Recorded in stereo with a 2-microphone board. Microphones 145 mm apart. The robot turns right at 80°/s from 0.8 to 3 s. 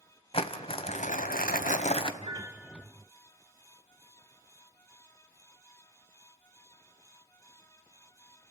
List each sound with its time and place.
0.3 s crumpling: 40° left, 1.2 m; by 2.1 s 145° left, 1.2 m
2.2 s a piano: 50° right, 1.0 m; by 2.9 s 5° left, 1.0 m